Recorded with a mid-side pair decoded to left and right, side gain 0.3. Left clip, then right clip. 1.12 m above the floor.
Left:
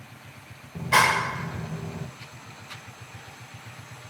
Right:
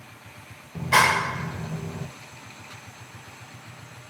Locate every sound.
0.8 s a clap: 20° right, 1.2 m